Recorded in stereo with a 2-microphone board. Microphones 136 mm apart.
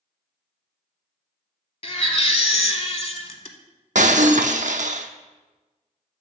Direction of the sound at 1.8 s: 45° left (ahead or behind).